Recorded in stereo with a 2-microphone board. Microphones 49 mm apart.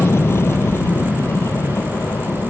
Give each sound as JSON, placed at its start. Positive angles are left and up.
{"t": 0.0, "sound": "an aircraft", "side_deg": 60}